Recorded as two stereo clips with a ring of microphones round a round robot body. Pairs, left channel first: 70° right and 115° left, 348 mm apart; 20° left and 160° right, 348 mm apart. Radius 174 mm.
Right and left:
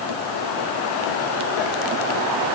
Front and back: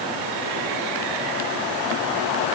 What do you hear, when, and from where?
Only background noise.